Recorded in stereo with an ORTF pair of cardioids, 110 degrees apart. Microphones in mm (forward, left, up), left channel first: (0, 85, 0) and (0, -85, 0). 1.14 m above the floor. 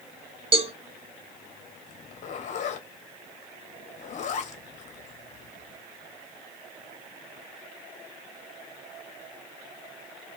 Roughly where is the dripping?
No dripping in this recording.